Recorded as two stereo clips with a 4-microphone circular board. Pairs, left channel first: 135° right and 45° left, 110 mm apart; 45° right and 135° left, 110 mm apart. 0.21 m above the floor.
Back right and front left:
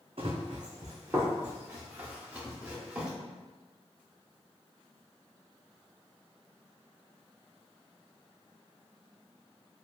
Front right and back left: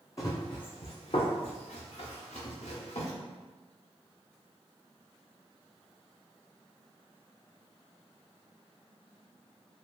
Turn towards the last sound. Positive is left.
turn(degrees=-40)